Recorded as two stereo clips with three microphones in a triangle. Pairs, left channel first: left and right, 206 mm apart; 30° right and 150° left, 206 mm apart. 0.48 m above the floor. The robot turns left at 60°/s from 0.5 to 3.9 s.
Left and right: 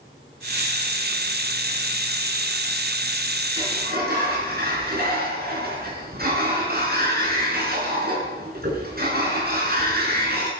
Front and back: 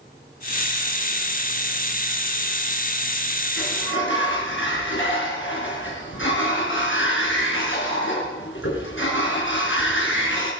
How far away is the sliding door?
About 4.5 m.